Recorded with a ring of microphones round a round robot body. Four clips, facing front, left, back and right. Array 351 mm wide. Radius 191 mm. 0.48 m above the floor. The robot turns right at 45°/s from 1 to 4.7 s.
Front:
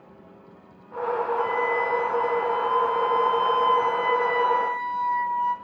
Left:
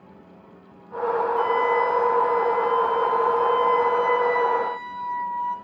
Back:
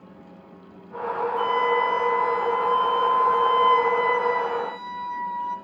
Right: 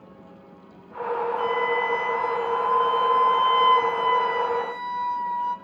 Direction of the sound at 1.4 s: 170° left.